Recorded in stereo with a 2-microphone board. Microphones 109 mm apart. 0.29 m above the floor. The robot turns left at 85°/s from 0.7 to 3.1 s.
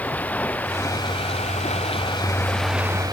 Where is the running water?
165° left; by 3.1 s 40° right.